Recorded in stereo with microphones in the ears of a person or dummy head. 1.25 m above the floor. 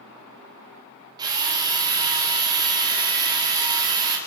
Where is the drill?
20° right (ahead or behind), 4.5 m.